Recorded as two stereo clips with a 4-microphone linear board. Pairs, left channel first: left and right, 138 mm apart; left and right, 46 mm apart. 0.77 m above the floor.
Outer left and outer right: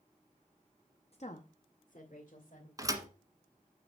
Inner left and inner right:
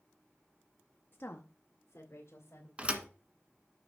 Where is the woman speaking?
50° left (ahead or behind), 0.7 m; by 2.7 s 75° left (ahead or behind), 2.5 m.